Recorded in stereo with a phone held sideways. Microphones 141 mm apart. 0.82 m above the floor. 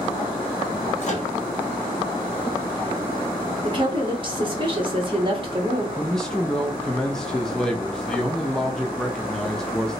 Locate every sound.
1.0 s a microwave: 55° left (ahead or behind), 1.0 m
3.6 s a woman speaking: 40° right (ahead or behind), 1.3 m
6.0 s a man speaking: 5° left (ahead or behind), 0.6 m